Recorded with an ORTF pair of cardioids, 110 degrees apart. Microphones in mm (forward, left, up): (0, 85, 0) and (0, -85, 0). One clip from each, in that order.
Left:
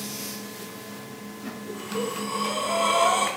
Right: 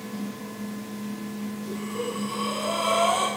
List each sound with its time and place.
1.7 s breathing: 25° left, 6.5 m